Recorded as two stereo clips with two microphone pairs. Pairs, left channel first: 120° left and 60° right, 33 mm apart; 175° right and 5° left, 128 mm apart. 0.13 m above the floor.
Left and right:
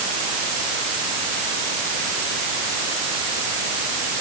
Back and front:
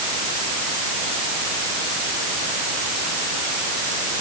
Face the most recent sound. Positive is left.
No sound to turn to.